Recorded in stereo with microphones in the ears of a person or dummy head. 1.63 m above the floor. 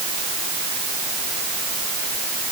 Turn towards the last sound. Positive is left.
No sound to turn to.